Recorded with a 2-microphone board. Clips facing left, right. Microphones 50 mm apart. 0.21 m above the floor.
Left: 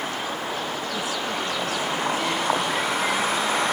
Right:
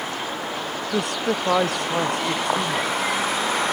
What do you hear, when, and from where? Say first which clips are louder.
0.9 s a man speaking: right 7 dB; 60° right (ahead or behind); by 3.3 s 65° right (ahead or behind)